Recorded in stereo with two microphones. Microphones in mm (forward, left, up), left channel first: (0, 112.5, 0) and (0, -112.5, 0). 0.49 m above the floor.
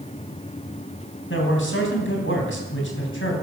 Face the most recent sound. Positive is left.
turn(degrees=65)  # may be behind; listen again after turning